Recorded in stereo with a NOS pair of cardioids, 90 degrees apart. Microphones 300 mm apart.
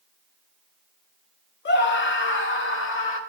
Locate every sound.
1.6 s a scream: 35° left, 1.0 m; by 3.2 s 40° left, 1.9 m